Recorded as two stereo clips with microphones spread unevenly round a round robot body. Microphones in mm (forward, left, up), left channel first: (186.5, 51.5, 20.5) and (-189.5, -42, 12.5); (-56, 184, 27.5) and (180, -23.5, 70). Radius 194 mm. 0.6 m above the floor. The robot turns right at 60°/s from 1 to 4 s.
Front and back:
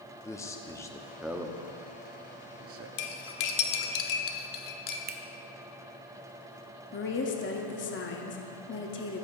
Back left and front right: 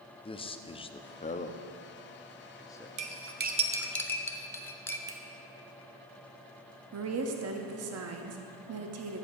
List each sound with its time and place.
0.2 s a man speaking: 95° left, 0.7 m; by 2.9 s 155° right, 0.7 m
3.0 s cutlery clinking: 5° right, 1.1 m; by 5.0 s 55° left, 1.1 m
5.1 s a finger snap: 125° right, 0.6 m
6.9 s a woman speaking: 30° right, 1.0 m